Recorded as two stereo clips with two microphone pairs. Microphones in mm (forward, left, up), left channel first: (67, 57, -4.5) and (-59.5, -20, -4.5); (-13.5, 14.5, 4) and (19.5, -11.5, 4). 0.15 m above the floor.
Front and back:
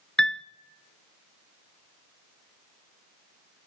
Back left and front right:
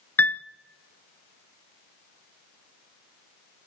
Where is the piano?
115° left, 0.7 m.